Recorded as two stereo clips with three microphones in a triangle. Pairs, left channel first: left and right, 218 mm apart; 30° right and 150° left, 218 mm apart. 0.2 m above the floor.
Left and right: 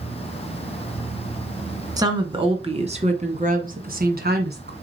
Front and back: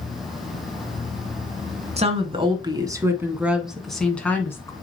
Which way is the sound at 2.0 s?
160° right.